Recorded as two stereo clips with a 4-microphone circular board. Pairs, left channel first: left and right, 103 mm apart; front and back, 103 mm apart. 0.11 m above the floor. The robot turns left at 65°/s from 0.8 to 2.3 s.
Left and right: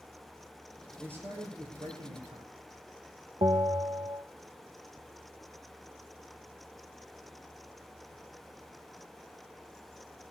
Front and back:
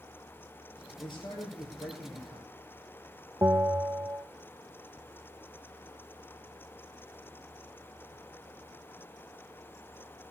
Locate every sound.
1.0 s a man speaking: 15° right, 3 m; by 2.5 s 100° right, 3 m
3.4 s a bell: 120° right, 0.7 m